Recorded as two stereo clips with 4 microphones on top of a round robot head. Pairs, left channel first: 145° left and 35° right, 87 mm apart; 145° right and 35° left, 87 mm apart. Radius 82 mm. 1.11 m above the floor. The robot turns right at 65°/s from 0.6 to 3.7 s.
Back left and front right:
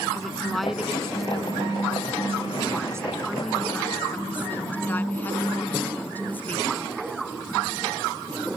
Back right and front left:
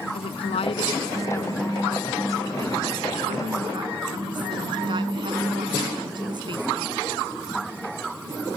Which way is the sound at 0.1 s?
130° right.